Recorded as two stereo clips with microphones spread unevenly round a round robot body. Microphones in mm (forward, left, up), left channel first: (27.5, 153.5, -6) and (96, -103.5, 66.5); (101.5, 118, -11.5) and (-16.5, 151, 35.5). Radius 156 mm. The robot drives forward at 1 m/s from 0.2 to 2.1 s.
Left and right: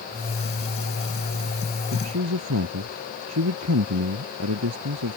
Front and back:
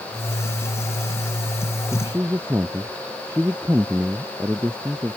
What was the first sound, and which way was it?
A man speaking, 115° right.